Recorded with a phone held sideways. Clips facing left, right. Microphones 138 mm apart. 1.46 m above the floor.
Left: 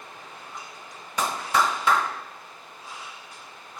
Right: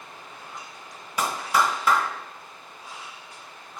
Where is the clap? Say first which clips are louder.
Even; 5° right (ahead or behind), 1.4 m.